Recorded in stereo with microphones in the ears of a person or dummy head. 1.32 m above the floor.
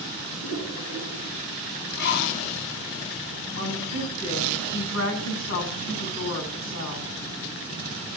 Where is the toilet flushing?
80° left, 6.5 m.